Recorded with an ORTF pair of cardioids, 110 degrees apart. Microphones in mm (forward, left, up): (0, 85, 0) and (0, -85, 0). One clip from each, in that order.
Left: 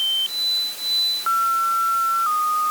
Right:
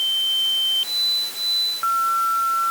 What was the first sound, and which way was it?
Only background noise.